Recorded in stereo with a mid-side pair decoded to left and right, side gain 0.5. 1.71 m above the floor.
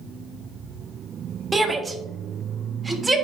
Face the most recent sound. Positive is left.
turn(degrees=-20)